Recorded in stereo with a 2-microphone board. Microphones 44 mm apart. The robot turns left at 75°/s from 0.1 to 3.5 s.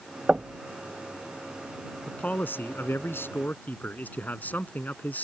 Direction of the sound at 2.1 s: 155° left.